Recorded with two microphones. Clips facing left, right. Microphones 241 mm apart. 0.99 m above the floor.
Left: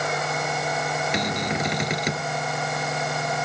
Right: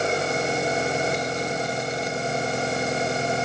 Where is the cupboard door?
80° left.